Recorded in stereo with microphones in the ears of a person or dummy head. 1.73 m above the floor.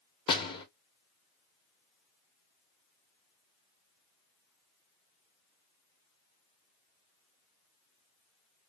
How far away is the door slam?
About 0.9 m.